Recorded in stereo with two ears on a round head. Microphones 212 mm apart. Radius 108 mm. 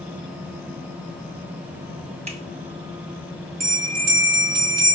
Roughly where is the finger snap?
Right.